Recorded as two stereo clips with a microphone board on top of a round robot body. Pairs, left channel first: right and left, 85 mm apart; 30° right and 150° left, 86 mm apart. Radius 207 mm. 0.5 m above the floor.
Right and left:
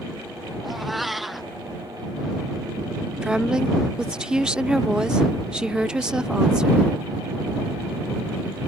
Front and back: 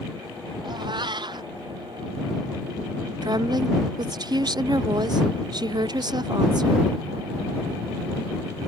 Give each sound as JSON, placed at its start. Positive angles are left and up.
{"t": 0.6, "sound": "a cat meowing", "azimuth_deg": 180}
{"t": 3.2, "sound": "a woman speaking", "azimuth_deg": 170}